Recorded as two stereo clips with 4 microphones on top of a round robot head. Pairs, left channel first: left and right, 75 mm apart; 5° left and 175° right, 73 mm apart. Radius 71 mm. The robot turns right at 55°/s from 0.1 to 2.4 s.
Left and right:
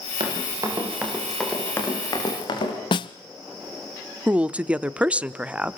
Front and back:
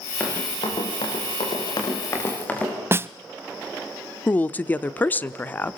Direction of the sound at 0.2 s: 70° right.